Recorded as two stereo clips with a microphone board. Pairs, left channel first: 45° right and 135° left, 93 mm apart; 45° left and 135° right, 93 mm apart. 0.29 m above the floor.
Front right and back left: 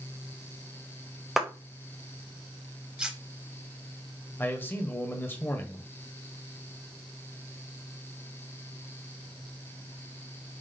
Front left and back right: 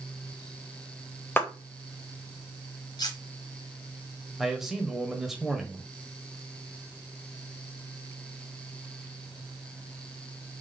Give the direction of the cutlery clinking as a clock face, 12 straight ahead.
10 o'clock.